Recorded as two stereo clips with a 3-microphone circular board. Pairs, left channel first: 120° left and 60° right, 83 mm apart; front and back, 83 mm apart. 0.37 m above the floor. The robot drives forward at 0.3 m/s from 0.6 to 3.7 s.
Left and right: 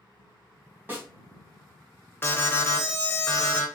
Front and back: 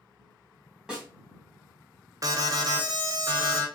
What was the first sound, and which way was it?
A snare drum, 105° right.